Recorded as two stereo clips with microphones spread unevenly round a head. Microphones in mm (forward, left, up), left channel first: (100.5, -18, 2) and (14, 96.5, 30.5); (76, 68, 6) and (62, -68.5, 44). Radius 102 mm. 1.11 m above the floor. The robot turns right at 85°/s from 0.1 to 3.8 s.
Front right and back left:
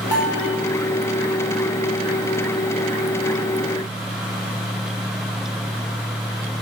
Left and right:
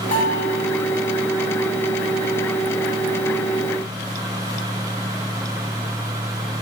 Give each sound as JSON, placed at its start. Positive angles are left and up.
{"t": 0.1, "sound": "a bell", "azimuth_deg": 65, "distance_m": 3.5}